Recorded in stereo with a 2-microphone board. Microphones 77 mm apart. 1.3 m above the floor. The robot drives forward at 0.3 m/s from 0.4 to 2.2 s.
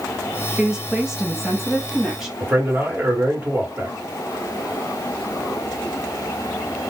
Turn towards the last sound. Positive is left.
turn(degrees=-25)  # may be behind; listen again after turning